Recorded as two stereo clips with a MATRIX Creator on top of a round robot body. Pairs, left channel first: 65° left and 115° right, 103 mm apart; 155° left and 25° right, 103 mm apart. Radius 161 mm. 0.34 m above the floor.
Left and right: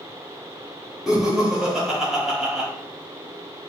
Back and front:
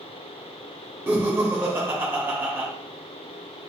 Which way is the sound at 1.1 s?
35° right.